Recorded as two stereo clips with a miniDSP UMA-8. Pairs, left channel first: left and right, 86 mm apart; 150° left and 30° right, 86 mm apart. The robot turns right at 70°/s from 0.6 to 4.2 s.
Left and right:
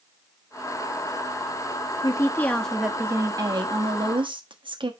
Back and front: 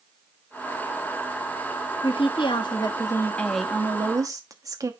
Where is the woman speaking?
130° left, 1.2 m; by 4.9 s 80° right, 1.2 m.